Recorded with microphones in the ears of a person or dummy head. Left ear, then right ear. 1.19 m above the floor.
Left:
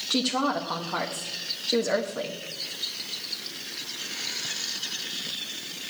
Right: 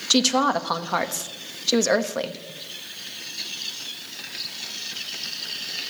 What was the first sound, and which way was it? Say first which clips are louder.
A woman speaking: right 6 dB; 75° right (ahead or behind).